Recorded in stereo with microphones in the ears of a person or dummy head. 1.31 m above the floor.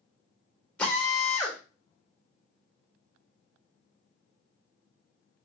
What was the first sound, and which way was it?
A drill, 5° left (ahead or behind).